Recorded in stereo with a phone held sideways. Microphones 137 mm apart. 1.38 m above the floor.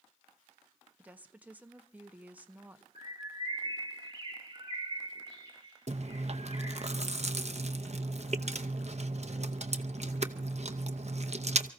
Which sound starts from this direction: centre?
A woman speaking, at 1.0 s.